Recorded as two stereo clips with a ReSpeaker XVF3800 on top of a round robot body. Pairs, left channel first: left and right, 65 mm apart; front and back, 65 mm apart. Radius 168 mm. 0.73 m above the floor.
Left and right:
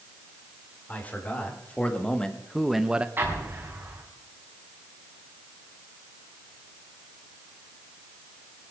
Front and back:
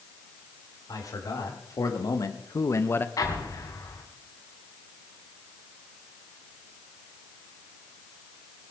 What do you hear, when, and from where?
0.9 s a man speaking: 25° left, 3.5 m; by 3.1 s 30° right, 1.1 m
3.2 s an explosion: 30° right, 3 m